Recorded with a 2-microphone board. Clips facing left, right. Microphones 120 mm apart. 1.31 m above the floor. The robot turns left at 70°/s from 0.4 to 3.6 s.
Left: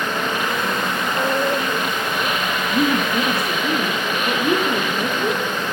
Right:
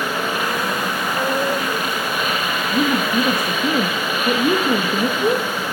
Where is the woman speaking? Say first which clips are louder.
Right 1 dB; 10° right, 1.3 m; by 5.4 s 75° right, 1.3 m.